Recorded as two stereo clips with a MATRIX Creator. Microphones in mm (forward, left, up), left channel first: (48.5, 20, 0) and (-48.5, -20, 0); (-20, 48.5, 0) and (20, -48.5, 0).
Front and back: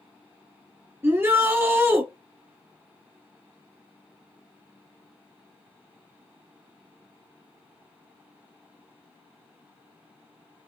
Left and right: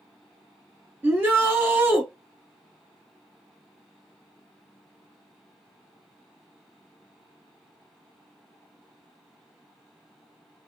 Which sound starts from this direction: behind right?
A shout, at 1.0 s.